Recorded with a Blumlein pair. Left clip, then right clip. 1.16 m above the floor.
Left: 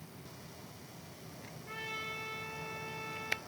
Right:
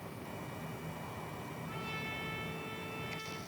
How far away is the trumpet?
About 4.5 m.